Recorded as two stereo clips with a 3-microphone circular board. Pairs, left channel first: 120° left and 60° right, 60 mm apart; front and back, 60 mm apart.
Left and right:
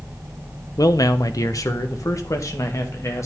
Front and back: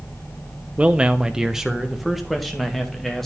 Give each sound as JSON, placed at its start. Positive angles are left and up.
{"t": 0.8, "sound": "a man speaking", "azimuth_deg": 115, "distance_m": 0.8}